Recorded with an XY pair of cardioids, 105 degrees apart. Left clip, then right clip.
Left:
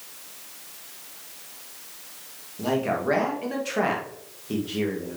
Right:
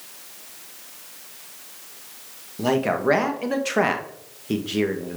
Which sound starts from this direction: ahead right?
A man speaking, at 2.6 s.